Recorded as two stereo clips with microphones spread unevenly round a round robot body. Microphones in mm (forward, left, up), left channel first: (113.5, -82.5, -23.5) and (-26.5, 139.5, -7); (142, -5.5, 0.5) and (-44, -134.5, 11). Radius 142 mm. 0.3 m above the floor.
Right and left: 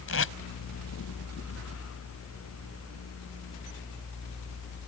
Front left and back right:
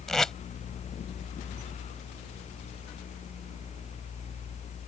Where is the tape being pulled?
50° right.